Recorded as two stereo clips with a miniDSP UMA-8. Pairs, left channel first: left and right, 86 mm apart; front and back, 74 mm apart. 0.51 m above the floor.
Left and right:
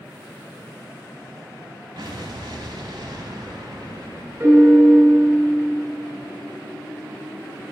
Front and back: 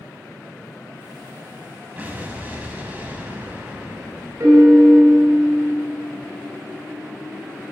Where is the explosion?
115° right, 0.9 m.